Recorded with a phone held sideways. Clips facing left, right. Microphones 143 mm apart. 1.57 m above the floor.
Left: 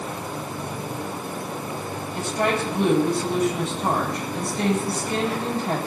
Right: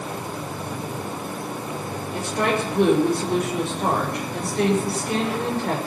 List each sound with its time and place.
2.1 s a woman speaking: 65° right (ahead or behind), 5.5 m